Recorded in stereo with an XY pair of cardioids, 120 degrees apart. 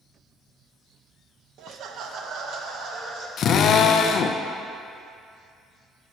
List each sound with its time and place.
1.6 s laughter: 65° right, 0.7 m; by 3.3 s 70° right, 1.9 m
3.4 s a drill: 55° left, 0.5 m